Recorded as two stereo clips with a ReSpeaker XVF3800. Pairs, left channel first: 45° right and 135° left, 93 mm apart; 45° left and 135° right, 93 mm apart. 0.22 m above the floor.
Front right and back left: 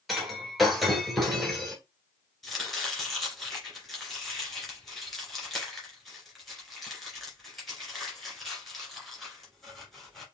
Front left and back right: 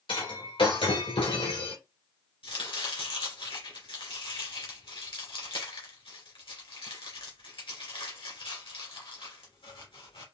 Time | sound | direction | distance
0.1 | breaking glass | 45° left | 1.9 m
2.4 | chopping | 45° left | 2 m